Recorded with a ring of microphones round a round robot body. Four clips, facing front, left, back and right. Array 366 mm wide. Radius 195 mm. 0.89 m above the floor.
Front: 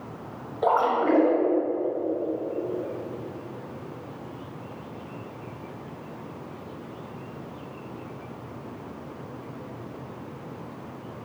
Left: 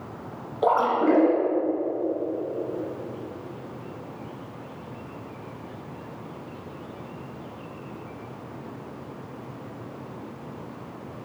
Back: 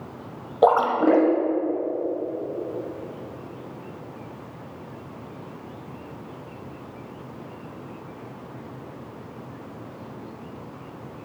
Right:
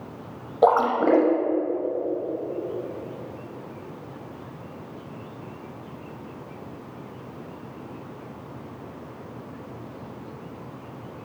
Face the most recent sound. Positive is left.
turn(degrees=-145)